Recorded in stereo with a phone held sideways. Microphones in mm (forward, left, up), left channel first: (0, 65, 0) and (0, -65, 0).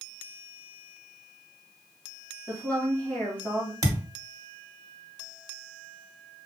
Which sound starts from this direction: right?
A thud, at 3.8 s.